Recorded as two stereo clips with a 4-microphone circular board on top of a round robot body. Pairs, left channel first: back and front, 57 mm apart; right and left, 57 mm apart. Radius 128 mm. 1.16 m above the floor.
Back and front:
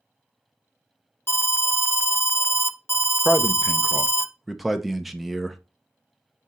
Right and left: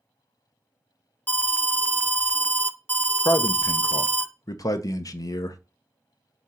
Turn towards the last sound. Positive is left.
turn(degrees=-85)